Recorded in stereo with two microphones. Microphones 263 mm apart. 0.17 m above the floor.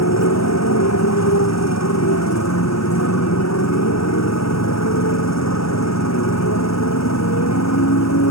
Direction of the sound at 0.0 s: 85° left.